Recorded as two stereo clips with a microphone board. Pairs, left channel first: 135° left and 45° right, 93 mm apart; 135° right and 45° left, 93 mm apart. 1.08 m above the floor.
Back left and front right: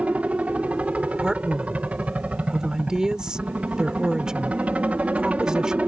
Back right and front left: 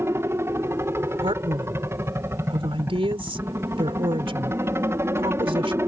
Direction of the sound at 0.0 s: 20° left.